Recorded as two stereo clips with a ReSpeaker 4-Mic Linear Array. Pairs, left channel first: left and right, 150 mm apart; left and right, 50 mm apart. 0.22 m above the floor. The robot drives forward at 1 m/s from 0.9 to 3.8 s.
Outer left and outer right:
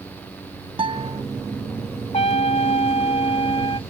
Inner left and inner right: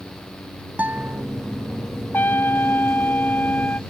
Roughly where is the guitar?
Right.